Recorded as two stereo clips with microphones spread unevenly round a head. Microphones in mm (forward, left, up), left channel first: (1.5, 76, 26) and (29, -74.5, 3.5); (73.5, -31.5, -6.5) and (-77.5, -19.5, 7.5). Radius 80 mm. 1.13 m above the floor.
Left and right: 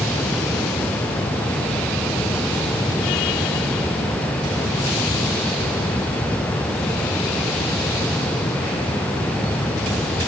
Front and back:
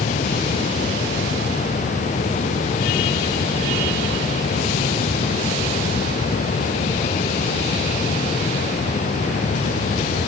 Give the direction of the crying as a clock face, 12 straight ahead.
No crying in this recording.